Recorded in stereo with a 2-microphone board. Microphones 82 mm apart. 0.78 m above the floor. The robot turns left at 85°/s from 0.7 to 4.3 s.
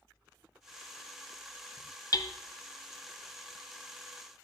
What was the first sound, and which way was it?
Hammering, 45° left (ahead or behind).